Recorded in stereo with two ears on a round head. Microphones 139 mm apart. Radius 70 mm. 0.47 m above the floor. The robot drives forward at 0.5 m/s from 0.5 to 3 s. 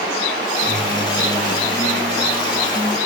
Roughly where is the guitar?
Centre.